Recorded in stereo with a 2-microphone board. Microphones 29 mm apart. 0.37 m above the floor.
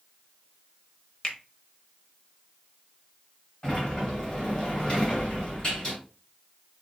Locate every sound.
1.2 s a finger snap: 40° left (ahead or behind), 1.0 m
3.6 s a sliding door: 35° left (ahead or behind), 2.5 m